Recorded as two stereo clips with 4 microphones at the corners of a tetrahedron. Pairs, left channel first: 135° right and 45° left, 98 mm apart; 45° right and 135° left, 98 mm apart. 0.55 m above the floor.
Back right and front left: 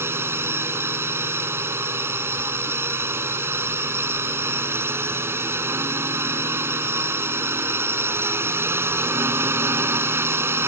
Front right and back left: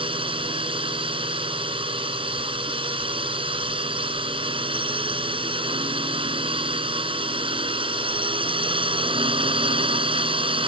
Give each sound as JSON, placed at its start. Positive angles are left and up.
{"t": 0.0, "sound": "a drone", "azimuth_deg": 110}